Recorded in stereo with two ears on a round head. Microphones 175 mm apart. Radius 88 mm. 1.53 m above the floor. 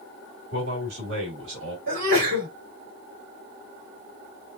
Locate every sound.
0.5 s a man speaking: 50° right (ahead or behind), 2.5 m; by 1.8 s 65° right (ahead or behind), 2.0 m
1.9 s a sneeze: 50° right (ahead or behind), 2.5 m